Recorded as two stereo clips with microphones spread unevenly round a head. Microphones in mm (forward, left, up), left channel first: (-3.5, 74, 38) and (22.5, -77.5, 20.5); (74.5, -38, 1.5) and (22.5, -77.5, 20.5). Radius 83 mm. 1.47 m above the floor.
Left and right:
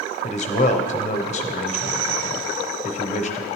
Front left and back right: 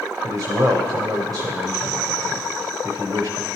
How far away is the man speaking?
About 0.6 m.